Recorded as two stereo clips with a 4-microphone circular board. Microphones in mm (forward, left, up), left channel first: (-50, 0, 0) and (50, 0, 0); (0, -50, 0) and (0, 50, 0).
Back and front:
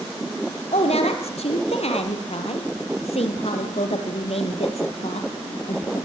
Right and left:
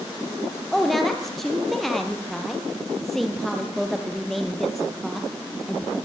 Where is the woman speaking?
Straight behind, 4.5 m.